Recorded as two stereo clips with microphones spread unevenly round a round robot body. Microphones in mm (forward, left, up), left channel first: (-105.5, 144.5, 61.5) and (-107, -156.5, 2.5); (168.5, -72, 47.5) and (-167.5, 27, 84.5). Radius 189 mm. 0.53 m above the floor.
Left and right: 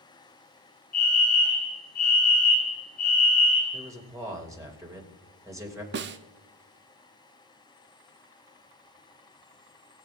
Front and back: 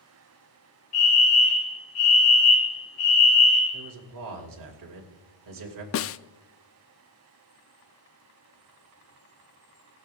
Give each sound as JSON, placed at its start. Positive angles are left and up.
{"t": 0.9, "sound": "a fire alarm", "azimuth_deg": 20, "distance_m": 3.0}
{"t": 3.7, "sound": "a man speaking", "azimuth_deg": -165, "distance_m": 3.0}
{"t": 5.9, "sound": "a snare drum", "azimuth_deg": -55, "distance_m": 0.5}